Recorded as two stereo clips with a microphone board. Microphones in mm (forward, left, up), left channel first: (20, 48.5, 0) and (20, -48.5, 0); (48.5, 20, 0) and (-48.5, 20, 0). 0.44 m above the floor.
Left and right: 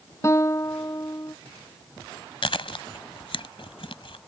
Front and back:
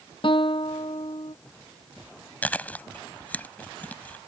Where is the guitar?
30° left.